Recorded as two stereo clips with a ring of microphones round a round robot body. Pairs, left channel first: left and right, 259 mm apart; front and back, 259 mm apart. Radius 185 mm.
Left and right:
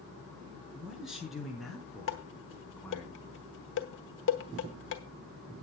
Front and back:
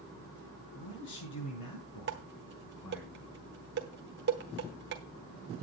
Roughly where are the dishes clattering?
Behind left.